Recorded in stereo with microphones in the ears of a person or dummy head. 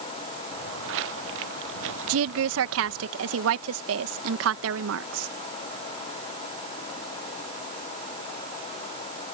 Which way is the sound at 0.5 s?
75° right (ahead or behind).